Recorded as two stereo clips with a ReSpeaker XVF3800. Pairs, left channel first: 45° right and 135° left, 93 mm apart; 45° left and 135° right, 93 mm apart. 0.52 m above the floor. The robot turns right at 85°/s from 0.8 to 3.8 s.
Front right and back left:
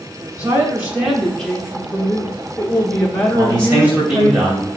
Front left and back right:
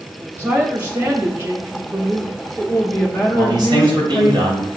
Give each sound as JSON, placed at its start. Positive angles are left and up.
{"t": 0.4, "sound": "a woman speaking", "azimuth_deg": -170, "distance_m": 0.9}
{"t": 3.3, "sound": "a man speaking", "azimuth_deg": 170, "distance_m": 2.5}